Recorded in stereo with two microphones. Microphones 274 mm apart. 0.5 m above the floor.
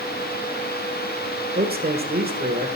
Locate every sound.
1.6 s a man speaking: 35° right (ahead or behind), 1.3 m